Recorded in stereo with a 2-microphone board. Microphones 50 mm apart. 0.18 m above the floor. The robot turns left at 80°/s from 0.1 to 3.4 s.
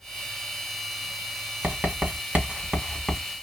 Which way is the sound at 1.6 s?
25° right (ahead or behind).